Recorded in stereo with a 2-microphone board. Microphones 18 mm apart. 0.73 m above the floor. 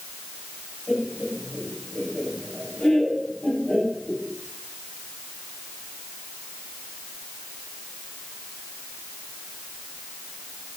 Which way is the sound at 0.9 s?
70° left (ahead or behind).